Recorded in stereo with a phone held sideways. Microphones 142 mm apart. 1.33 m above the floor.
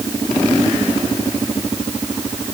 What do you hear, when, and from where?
Only background noise.